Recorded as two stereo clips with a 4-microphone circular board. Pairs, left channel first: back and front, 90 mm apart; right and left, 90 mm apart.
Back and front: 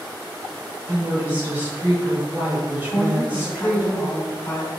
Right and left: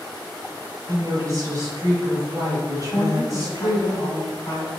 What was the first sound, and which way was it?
A woman speaking, 60° left.